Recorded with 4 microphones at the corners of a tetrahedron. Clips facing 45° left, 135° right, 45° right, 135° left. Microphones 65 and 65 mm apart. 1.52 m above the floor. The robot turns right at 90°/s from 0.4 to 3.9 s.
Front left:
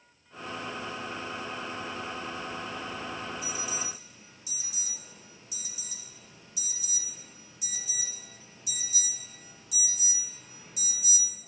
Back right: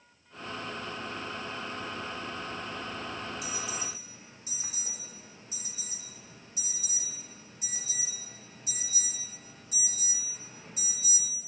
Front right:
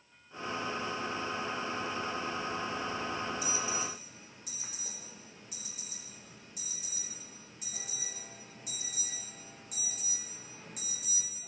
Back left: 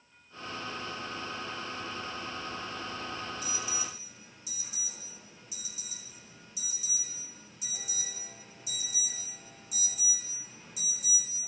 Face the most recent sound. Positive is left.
turn(degrees=-80)